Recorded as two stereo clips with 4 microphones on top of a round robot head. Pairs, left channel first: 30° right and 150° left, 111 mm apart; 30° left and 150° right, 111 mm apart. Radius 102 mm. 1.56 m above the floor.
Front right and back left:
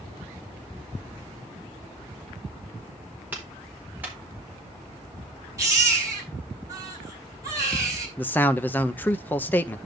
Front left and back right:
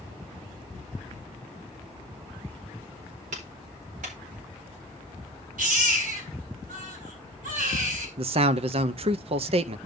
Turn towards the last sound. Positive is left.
turn(degrees=-110)